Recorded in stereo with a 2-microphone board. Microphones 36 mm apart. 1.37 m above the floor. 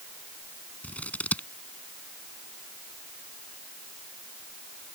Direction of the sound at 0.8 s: 50° left (ahead or behind).